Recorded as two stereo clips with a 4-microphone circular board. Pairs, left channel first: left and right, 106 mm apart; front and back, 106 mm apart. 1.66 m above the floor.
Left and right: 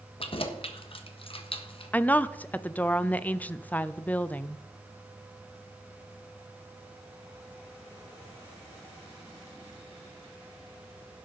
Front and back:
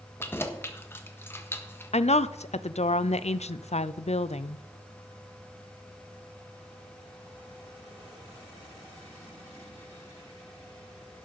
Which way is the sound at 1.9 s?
15° left.